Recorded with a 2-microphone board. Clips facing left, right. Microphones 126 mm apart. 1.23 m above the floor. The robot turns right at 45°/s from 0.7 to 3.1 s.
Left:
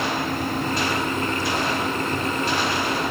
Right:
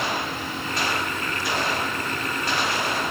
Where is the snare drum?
I don't hear a snare drum.